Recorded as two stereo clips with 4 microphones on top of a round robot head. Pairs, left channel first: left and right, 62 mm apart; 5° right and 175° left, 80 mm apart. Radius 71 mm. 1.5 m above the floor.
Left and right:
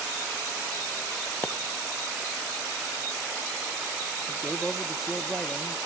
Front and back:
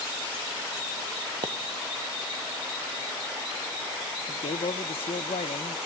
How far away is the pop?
About 1.0 m.